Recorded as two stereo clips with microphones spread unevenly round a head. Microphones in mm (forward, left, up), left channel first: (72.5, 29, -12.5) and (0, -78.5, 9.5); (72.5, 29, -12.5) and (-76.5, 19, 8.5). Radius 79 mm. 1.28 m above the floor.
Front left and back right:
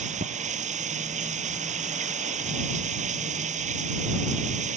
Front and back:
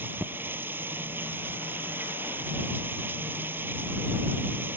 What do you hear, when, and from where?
0.0 s running water: 100° right